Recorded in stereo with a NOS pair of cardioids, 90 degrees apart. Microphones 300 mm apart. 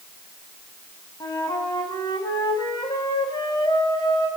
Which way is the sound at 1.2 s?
15° left.